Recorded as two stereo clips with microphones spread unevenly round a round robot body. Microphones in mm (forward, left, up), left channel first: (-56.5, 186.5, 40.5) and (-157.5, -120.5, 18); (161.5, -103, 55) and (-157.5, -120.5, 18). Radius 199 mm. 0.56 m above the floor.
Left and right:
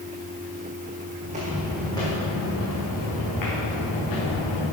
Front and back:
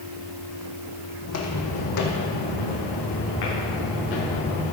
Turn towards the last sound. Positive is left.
turn(degrees=40)